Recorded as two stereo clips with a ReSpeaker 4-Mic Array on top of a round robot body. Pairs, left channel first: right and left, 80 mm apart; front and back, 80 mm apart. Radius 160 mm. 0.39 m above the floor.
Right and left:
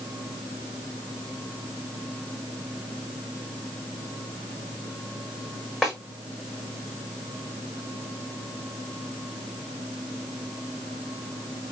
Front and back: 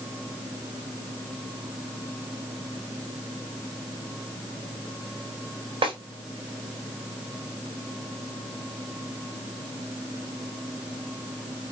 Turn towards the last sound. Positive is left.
turn(degrees=180)